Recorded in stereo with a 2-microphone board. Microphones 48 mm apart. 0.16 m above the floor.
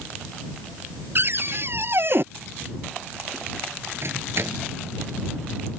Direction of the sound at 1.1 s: 50° right (ahead or behind).